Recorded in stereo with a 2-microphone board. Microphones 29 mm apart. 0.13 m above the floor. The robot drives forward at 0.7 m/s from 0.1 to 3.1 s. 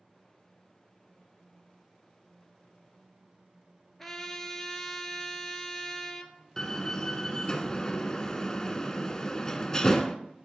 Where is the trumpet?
5° left (ahead or behind), 1.6 m.